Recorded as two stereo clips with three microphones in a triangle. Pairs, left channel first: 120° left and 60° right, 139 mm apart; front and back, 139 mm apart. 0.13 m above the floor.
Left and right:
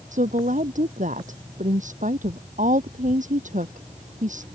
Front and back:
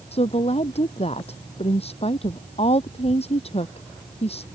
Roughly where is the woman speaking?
Ahead right.